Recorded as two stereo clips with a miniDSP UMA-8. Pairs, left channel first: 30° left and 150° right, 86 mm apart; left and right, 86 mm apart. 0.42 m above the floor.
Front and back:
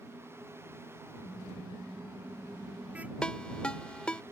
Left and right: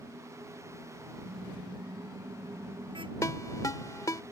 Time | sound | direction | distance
1.2 | a car horn | 75° right | ?
3.2 | a ringtone | 105° left | ?